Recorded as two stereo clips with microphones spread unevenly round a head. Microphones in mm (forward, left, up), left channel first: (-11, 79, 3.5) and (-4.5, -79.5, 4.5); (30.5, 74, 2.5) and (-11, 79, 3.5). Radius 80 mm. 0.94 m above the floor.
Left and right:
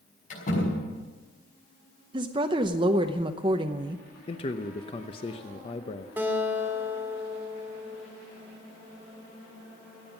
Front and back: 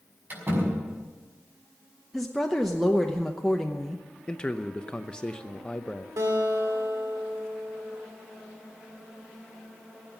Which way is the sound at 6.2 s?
165° right.